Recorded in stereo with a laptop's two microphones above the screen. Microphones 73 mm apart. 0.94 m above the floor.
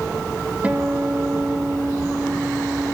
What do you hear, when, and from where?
0.6 s a guitar: 20° right (ahead or behind), 1.1 m